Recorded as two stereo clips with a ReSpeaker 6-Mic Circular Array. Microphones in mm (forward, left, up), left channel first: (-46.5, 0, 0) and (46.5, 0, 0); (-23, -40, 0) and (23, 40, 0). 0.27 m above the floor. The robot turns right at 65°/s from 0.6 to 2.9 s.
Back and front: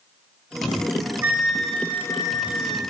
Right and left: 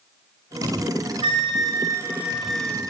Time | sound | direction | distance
1.2 | a flute | 65° left | 0.7 m